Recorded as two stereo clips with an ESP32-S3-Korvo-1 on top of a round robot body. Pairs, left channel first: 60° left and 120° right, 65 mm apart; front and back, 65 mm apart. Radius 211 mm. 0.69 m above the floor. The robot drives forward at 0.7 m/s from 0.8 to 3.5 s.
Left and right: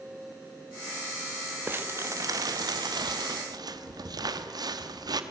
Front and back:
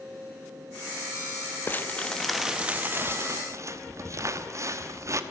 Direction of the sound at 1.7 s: 60° right.